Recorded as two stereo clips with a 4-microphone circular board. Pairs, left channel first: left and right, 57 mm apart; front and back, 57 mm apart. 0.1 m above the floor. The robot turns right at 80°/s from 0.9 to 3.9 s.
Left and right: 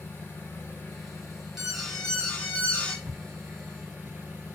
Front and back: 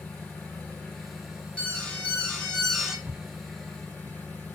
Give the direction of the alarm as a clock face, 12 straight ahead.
12 o'clock.